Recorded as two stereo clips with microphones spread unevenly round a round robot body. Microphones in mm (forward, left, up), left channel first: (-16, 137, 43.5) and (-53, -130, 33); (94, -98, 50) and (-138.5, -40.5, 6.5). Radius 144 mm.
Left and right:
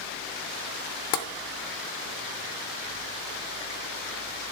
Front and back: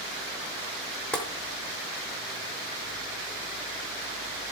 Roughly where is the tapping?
Left.